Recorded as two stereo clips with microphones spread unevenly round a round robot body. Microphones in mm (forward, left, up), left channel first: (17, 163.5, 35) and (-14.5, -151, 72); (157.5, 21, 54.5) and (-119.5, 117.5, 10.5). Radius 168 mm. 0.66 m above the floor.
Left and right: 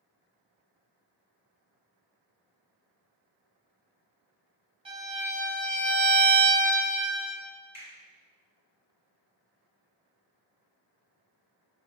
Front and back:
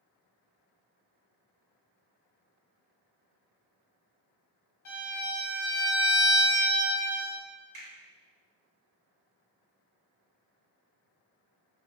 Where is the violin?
20° right, 1.5 m.